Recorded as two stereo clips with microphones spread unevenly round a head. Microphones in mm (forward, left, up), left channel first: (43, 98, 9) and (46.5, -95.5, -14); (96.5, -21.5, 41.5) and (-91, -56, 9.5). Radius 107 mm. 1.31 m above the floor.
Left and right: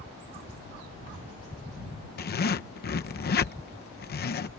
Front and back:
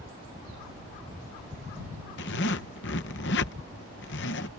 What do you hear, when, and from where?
2.2 s a zipper: 50° left